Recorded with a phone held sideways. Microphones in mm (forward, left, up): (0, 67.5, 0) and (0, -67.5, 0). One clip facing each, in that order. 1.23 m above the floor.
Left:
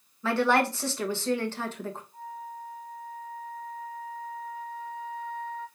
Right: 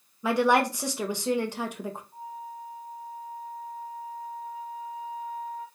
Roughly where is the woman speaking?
Centre.